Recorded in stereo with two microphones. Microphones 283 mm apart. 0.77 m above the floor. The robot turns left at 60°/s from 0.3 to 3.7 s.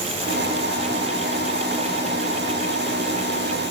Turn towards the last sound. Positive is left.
No sound to turn to.